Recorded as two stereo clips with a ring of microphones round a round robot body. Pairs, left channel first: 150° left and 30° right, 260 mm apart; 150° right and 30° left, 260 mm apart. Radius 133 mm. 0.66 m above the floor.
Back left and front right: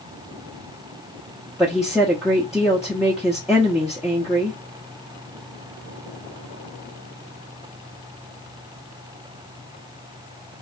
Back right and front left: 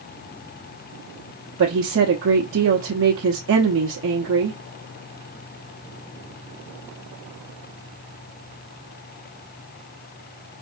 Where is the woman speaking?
55° left, 1.0 m.